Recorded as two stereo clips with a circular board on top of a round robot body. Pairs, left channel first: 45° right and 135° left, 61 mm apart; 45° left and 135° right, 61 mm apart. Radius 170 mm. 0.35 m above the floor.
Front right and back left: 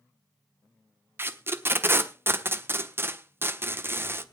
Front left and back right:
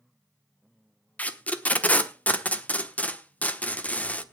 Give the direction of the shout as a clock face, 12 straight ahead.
No shout in this recording.